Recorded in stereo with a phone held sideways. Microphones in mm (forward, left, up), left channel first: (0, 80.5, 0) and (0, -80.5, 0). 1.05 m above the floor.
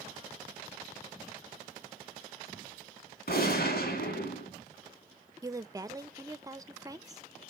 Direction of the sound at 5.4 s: 20° right (ahead or behind).